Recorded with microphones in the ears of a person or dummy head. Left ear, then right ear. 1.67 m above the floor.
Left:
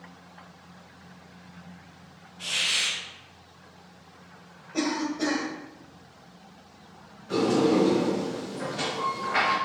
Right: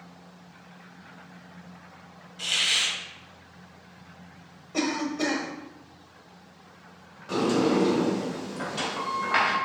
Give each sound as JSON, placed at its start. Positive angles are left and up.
{"t": 2.4, "sound": "a hiss", "side_deg": -85, "distance_m": 1.4}
{"t": 4.7, "sound": "a cough", "side_deg": -45, "distance_m": 1.2}
{"t": 7.3, "sound": "a sliding door", "side_deg": -65, "distance_m": 2.0}